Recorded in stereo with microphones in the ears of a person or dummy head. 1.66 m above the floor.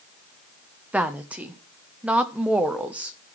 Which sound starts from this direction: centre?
A woman speaking, at 0.9 s.